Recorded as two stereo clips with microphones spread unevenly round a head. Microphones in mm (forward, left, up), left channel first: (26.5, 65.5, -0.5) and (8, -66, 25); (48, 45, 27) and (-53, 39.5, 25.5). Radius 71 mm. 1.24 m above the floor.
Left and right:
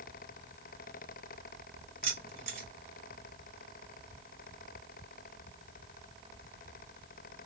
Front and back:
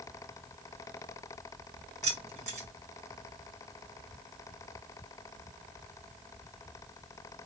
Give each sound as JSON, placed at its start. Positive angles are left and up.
{"t": 2.0, "sound": "keys jangling", "azimuth_deg": -145, "distance_m": 1.7}